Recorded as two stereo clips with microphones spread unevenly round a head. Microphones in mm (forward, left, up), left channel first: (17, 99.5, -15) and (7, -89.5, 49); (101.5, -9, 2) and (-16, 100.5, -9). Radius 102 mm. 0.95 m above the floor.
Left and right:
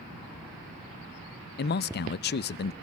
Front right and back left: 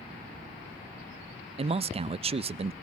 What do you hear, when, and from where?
1.6 s a man speaking: 85° left, 0.5 m